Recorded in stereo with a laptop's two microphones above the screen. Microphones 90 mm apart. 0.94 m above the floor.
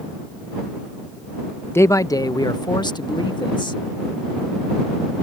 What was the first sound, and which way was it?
A man speaking, 25° left (ahead or behind).